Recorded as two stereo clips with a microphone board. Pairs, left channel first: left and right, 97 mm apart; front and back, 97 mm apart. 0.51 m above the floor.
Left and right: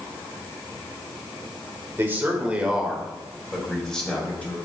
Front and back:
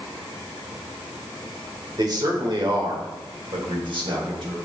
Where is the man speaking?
150° right, 1.8 m; by 4.6 s 165° left, 2.5 m.